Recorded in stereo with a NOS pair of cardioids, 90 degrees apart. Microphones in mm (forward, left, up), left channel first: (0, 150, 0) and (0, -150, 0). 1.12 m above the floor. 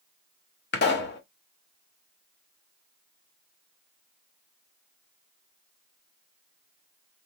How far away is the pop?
About 1.6 m.